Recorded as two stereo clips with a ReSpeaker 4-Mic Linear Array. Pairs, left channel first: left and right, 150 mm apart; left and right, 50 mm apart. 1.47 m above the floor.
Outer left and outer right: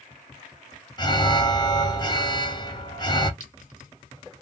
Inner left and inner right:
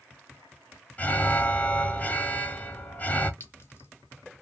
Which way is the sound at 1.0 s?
30° left (ahead or behind).